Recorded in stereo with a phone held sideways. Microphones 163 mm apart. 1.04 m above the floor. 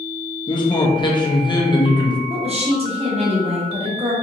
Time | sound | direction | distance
0.5 | a man speaking | 25° left (ahead or behind) | 0.6 m
2.3 | a woman speaking | 40° right (ahead or behind) | 0.8 m